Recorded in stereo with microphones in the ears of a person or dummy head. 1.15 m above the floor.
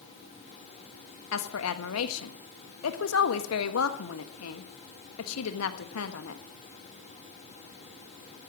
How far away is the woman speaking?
About 1.3 m.